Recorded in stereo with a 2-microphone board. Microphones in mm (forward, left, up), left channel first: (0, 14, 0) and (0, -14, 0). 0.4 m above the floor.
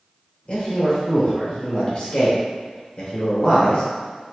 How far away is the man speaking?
About 1.3 m.